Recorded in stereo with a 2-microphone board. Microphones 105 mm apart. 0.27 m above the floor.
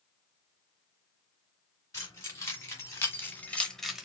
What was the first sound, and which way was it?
Keys jangling, 30° left (ahead or behind).